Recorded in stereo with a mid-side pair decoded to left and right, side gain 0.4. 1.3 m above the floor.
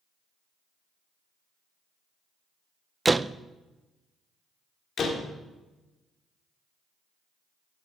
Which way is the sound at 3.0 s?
20° right.